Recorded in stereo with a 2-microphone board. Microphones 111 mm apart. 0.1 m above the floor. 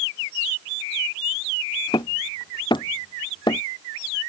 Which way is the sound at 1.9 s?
40° left (ahead or behind).